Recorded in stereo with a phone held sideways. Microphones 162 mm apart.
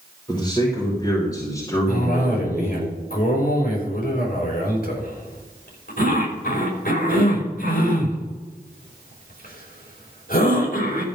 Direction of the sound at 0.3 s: 30° left (ahead or behind).